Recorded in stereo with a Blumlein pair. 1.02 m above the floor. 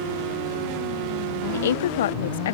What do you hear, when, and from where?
1.5 s a woman speaking: 60° left